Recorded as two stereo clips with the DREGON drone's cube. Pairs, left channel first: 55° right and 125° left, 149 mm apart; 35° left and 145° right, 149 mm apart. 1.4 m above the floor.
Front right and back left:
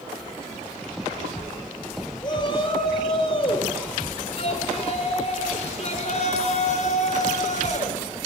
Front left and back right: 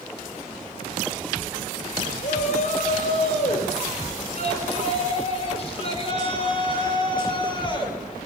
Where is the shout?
5° left, 6 m; by 8.0 s 25° right, 6 m.